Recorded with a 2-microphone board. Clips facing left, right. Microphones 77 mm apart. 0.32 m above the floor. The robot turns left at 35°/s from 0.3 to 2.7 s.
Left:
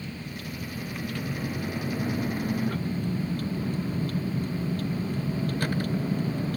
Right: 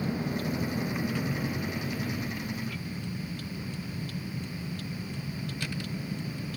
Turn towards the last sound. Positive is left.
turn(degrees=135)